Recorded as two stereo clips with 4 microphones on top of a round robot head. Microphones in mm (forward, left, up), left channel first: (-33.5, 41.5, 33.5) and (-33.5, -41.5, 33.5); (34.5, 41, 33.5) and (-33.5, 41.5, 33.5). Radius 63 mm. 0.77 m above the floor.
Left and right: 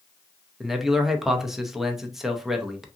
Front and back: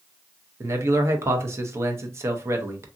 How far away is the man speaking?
About 0.7 m.